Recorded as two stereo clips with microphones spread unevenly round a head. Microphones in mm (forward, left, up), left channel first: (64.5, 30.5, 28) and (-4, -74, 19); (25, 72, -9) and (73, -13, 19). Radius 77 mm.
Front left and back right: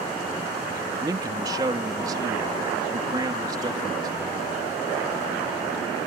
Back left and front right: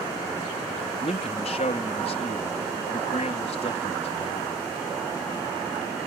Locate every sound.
1.0 s a man speaking: 170° left